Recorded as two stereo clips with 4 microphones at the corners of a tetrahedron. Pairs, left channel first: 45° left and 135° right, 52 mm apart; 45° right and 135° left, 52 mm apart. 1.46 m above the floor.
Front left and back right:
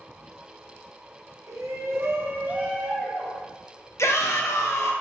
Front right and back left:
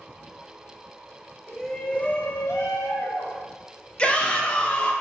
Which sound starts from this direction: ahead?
A shout, at 4.0 s.